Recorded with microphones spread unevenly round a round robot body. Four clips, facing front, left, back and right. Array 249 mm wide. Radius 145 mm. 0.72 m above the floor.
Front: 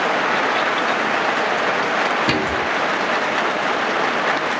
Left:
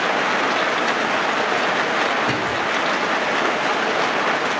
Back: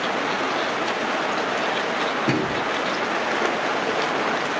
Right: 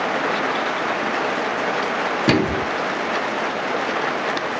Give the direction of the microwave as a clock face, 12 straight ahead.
3 o'clock.